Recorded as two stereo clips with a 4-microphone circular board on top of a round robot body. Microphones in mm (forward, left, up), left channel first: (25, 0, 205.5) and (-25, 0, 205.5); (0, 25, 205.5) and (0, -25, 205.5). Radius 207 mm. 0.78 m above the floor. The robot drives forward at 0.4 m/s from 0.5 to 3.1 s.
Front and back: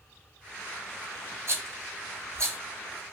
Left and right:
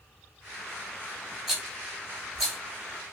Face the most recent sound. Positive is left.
turn(degrees=-175)